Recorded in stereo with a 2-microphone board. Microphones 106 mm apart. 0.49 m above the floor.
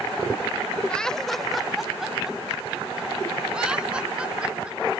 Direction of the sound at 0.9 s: 10° left (ahead or behind).